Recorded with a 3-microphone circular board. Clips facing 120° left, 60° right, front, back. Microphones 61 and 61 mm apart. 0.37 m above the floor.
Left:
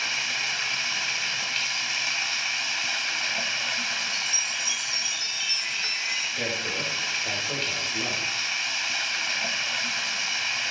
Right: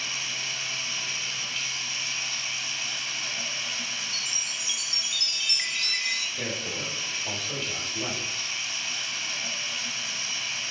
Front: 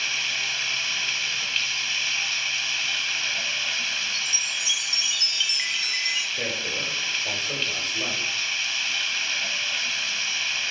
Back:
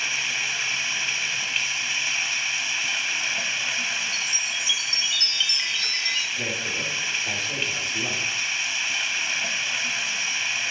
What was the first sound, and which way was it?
Running water, 105° left.